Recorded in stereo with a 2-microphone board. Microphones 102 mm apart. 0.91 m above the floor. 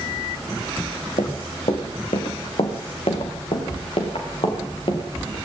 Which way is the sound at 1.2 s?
75° left (ahead or behind).